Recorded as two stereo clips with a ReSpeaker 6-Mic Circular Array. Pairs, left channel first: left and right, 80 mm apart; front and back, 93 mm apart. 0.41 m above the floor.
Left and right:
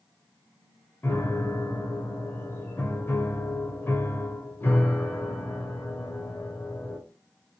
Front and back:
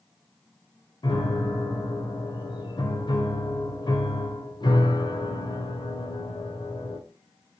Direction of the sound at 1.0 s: 30° left.